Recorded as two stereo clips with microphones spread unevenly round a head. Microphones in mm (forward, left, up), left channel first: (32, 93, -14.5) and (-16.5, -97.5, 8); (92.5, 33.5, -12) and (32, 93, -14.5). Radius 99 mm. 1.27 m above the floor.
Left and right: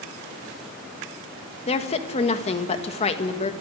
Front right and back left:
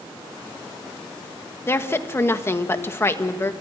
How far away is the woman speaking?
About 1.7 m.